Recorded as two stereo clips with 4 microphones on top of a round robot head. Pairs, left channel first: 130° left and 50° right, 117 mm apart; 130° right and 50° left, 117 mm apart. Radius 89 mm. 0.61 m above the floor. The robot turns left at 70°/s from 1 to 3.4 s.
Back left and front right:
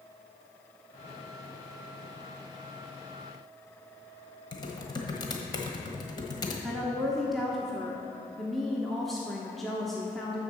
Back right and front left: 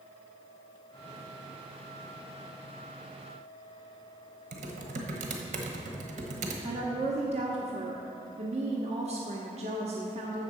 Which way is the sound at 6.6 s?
40° left.